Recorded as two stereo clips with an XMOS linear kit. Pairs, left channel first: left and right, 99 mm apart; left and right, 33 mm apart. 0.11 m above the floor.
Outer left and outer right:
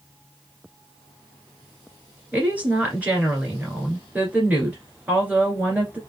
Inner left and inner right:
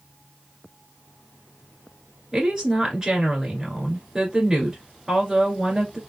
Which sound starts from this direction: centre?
A woman speaking, at 2.3 s.